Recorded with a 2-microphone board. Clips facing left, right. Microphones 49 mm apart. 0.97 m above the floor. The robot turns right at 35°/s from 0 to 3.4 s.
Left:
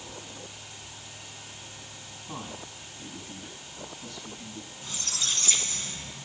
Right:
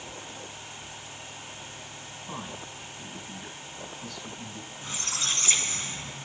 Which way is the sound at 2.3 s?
65° right (ahead or behind).